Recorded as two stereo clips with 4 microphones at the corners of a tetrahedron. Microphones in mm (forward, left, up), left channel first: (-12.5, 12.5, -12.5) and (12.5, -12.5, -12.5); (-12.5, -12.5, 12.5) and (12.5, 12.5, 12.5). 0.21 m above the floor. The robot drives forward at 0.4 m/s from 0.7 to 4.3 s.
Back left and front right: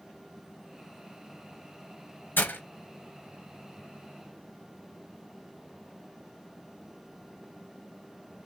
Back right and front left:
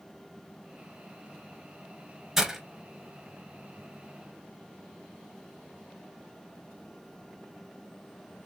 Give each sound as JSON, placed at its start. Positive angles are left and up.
{"t": 2.4, "sound": "breaking glass", "azimuth_deg": 120, "distance_m": 1.2}